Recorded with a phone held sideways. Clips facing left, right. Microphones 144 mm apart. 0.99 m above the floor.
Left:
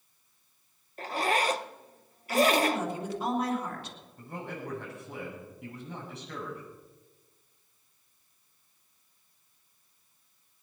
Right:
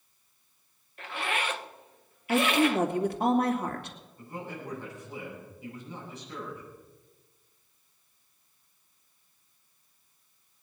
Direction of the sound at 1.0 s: 40° left (ahead or behind).